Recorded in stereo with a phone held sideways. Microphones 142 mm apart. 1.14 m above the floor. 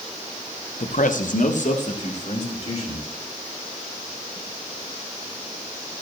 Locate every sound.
0.8 s a man speaking: 60° left (ahead or behind), 0.7 m; by 3.1 s 50° left (ahead or behind), 3 m